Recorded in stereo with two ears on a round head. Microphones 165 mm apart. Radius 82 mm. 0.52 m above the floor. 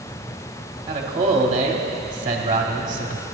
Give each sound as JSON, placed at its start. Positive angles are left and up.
{"t": 0.9, "sound": "a man speaking", "side_deg": -30, "distance_m": 1.4}